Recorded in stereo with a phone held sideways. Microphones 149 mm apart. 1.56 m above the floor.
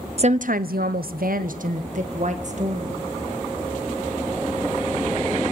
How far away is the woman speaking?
About 0.6 m.